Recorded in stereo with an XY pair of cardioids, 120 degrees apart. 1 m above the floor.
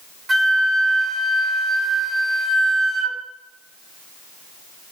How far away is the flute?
About 1.1 m.